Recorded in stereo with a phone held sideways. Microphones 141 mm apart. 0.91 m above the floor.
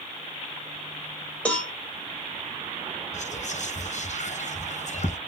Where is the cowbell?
10° left (ahead or behind), 1.0 m.